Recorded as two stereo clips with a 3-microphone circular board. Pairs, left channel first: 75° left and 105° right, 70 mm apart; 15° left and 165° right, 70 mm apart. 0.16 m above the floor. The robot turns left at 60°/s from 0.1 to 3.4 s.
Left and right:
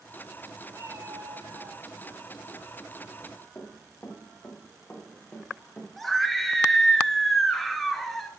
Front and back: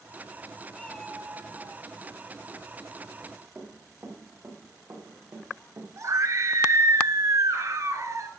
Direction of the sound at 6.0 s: 165° left.